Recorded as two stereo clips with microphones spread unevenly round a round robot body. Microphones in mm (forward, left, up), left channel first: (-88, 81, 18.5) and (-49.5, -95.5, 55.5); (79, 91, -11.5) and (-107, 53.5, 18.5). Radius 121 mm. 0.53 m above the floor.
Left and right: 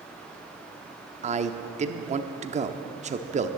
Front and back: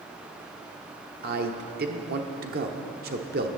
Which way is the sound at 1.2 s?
130° right.